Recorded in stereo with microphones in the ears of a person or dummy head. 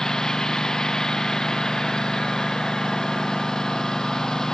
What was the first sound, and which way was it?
A lawn mower, 5° left (ahead or behind).